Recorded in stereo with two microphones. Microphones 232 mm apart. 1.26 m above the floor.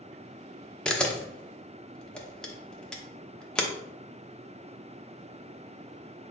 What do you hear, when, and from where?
0.8 s a camera shutter: 5° left (ahead or behind), 0.7 m